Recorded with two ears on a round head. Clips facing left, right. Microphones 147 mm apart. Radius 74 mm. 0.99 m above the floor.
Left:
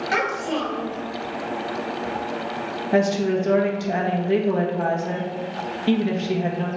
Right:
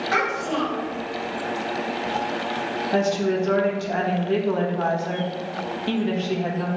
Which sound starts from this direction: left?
A child speaking, at 0.1 s.